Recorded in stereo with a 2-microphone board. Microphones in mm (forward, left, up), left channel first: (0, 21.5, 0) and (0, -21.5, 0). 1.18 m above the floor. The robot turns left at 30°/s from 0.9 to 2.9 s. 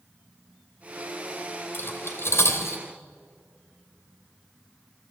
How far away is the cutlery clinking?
About 2.5 m.